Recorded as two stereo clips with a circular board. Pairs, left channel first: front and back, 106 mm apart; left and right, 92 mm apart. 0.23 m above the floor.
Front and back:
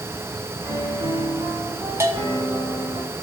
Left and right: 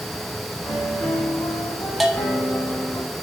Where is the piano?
135° left, 2.5 m.